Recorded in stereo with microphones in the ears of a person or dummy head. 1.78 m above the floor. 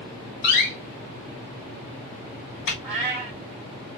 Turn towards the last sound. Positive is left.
turn(degrees=-5)  # may be behind; listen again after turning